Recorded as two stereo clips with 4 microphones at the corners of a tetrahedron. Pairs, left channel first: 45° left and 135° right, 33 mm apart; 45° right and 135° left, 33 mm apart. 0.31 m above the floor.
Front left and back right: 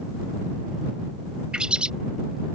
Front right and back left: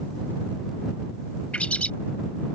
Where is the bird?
80° right.